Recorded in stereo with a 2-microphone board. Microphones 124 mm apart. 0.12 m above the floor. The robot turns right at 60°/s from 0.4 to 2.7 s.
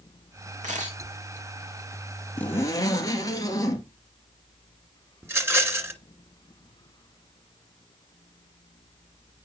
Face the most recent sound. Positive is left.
turn(degrees=-20)  # may be behind; listen again after turning